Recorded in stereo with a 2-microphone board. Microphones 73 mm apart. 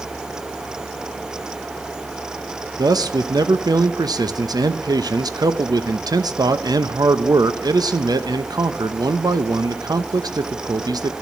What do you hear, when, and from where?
2.8 s a man speaking: 65° right (ahead or behind), 0.7 m